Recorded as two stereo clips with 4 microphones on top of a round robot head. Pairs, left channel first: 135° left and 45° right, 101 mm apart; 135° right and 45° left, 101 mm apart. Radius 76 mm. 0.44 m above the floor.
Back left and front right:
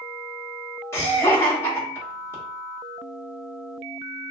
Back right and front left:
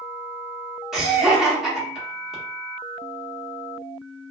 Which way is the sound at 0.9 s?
125° left.